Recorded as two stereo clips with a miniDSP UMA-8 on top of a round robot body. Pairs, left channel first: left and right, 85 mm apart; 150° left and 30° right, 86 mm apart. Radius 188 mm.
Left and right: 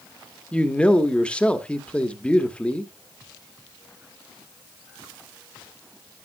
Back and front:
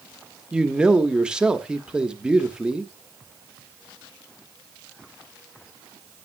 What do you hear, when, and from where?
0.5 s a man speaking: 35° left, 1.4 m